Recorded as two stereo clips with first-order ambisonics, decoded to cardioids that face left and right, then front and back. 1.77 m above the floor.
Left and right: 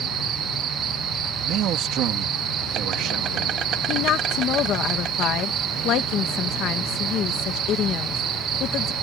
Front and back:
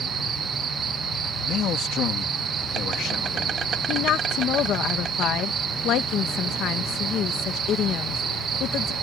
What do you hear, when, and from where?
0.0 s an insect: 130° right
1.4 s a man speaking: 45° right
3.9 s a woman speaking: 45° left